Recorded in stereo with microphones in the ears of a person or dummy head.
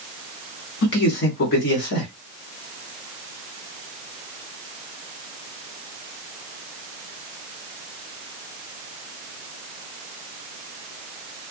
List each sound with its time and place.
0.8 s a man speaking: 60° left (ahead or behind), 1.3 m